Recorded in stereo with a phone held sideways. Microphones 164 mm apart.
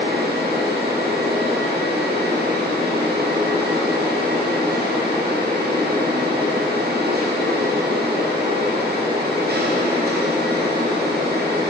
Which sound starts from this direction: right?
A fan, at 0.0 s.